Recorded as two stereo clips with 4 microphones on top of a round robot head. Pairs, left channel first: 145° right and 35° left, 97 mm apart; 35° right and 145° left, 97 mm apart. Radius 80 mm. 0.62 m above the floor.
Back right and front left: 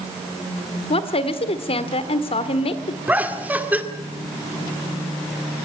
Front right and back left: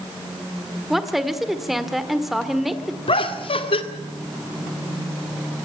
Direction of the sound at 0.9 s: 125° right.